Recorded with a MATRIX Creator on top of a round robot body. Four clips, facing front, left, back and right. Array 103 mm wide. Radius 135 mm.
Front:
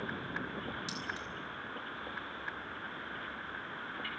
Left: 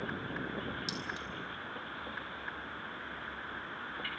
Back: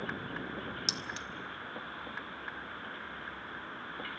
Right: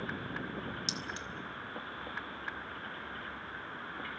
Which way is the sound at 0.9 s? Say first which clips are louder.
Left 1 dB, even; 175° right.